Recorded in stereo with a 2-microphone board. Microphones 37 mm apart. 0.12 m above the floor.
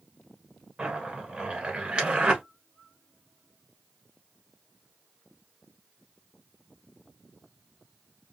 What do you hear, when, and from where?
0.8 s a zipper: 30° right (ahead or behind), 1.4 m